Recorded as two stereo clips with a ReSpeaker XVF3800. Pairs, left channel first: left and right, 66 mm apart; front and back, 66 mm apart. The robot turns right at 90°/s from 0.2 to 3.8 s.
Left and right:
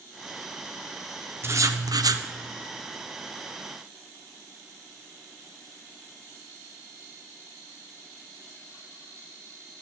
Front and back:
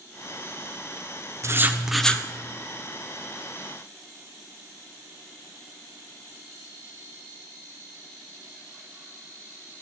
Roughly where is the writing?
Behind right.